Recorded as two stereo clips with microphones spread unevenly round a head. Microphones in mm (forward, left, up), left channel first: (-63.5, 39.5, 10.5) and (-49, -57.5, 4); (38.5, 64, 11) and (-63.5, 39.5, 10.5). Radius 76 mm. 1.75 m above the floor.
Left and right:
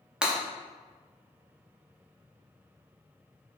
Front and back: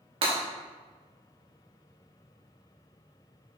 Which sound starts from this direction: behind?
Breaking glass, at 0.2 s.